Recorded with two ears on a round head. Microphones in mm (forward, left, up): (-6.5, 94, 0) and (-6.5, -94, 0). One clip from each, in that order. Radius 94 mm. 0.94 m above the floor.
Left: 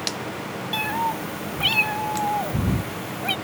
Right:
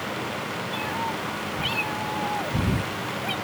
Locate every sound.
0.7 s a cat meowing: 40° left (ahead or behind); by 3.4 s 25° left (ahead or behind)